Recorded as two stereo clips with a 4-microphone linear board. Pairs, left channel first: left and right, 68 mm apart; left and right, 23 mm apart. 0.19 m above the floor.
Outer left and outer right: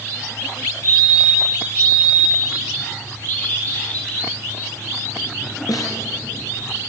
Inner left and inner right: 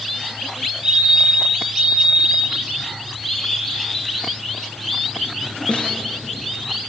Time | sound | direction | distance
0.8 | a fire alarm | 30° right (ahead or behind) | 7 m
3.2 | a bird | 25° left (ahead or behind) | 6 m
5.7 | a snare drum | 65° left (ahead or behind) | 3.5 m